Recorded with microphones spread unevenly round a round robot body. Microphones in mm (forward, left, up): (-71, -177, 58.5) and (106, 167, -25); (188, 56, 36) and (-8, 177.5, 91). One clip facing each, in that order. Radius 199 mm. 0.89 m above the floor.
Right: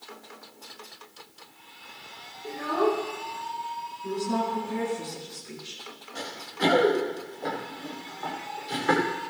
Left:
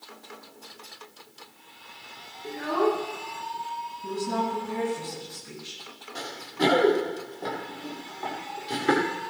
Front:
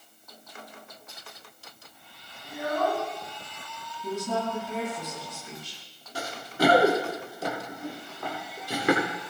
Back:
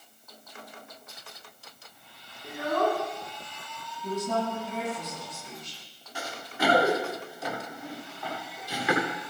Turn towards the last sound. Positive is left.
turn(degrees=5)